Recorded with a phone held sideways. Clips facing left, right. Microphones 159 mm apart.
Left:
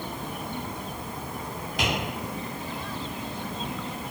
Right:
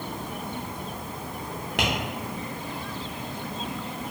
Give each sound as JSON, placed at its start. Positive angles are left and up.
{"t": 1.8, "sound": "tapping", "side_deg": -80, "distance_m": 0.8}